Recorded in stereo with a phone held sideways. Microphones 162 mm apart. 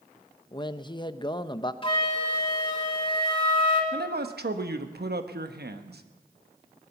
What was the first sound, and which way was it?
A man speaking, 30° left (ahead or behind).